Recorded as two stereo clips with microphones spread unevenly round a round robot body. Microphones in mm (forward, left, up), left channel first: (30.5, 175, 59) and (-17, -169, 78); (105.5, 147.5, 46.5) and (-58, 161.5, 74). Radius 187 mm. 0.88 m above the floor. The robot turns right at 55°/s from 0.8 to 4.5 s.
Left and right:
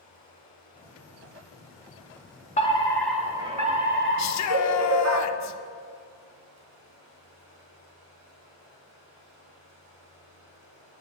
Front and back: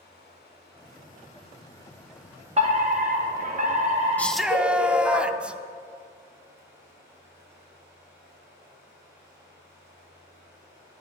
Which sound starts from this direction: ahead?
Running water, at 0.0 s.